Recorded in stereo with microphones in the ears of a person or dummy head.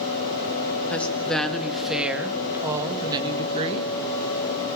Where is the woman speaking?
10° left (ahead or behind), 3.5 m; by 3.9 s 40° right (ahead or behind), 2.5 m.